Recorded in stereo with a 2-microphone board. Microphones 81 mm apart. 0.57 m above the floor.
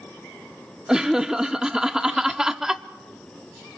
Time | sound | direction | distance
0.9 | laughter | 5° right (ahead or behind) | 0.7 m